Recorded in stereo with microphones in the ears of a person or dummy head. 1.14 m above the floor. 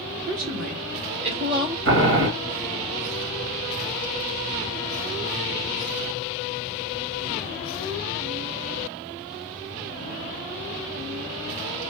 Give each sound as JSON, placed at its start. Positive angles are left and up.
{"t": 0.3, "sound": "a woman speaking", "side_deg": -50, "distance_m": 1.8}
{"t": 1.9, "sound": "boiling", "side_deg": -50, "distance_m": 1.4}